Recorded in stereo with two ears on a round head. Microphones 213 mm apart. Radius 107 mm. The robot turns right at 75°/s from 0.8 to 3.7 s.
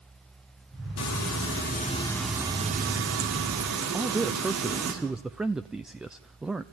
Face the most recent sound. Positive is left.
turn(degrees=-5)  # may be behind; listen again after turning